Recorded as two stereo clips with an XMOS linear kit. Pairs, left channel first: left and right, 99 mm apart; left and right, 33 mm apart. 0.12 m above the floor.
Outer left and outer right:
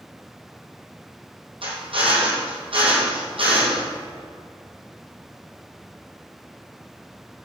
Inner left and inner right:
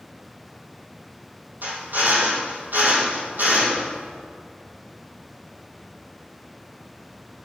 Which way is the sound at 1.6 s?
70° right (ahead or behind).